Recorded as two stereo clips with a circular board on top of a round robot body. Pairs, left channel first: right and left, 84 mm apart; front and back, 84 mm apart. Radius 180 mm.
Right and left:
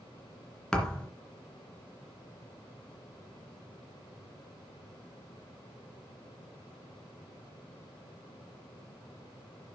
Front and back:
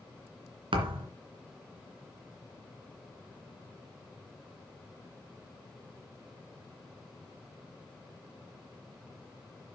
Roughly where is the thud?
Behind.